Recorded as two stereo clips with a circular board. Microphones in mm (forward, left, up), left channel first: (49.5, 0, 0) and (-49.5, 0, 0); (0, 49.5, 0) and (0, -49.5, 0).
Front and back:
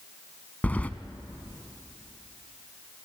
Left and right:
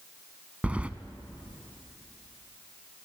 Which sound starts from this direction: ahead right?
Keys jangling, at 0.6 s.